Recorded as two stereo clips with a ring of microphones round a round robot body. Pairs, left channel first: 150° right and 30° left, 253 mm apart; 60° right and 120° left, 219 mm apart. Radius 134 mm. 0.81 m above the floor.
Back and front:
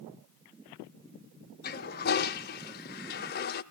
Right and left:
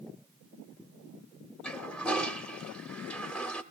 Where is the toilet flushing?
145° right, 0.6 m.